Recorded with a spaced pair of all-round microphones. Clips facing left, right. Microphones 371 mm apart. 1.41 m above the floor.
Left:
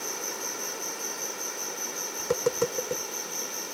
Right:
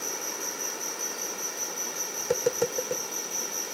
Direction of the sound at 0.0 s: 5° right (ahead or behind).